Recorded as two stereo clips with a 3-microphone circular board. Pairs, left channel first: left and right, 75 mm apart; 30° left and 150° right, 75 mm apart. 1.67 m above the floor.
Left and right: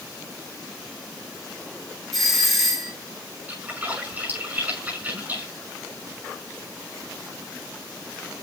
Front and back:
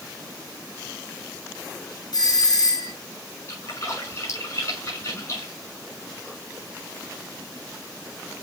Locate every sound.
2.1 s a doorbell: straight ahead, 2 m
3.5 s a splash: 20° right, 6 m